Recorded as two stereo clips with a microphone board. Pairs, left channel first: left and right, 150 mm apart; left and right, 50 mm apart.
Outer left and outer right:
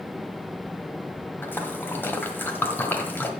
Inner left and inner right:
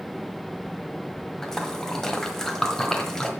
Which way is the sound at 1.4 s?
10° left (ahead or behind).